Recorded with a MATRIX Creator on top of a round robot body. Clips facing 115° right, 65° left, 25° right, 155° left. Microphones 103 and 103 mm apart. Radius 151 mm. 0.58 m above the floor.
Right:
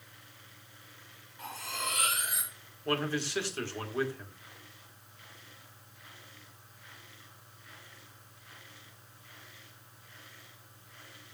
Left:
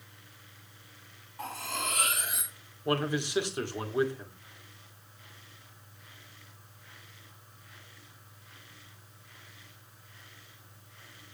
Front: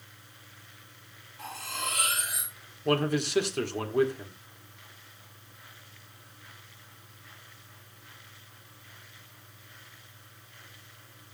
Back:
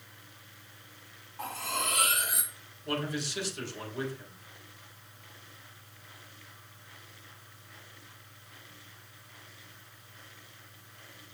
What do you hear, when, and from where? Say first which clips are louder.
1.4 s cutlery clinking: left 3 dB, back 2 dB; 115° left, 4.5 m
2.9 s a man speaking: left 2 dB, front 7 dB; 5° right, 2.5 m